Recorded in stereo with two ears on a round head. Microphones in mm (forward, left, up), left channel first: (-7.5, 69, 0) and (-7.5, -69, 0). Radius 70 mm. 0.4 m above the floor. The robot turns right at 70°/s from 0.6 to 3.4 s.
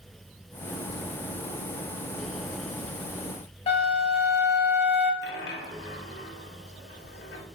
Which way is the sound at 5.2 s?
70° left (ahead or behind).